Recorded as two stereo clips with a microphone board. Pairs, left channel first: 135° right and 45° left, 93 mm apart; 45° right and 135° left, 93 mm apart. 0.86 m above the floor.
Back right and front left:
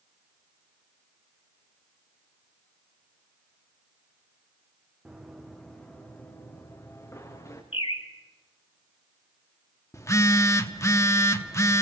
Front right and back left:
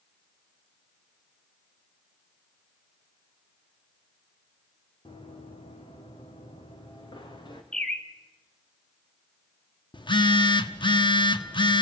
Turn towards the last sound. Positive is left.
turn(degrees=-75)